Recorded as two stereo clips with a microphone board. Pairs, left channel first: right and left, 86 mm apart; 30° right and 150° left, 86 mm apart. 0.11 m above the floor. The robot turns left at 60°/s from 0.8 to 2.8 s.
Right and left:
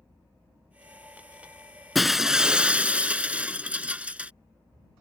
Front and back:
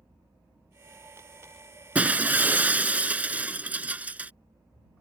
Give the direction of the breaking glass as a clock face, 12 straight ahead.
6 o'clock.